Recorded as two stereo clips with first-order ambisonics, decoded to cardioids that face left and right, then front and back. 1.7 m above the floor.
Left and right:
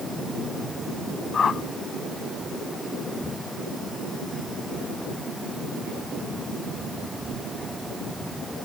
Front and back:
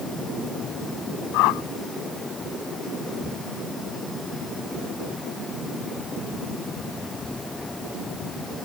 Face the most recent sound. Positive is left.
turn(degrees=20)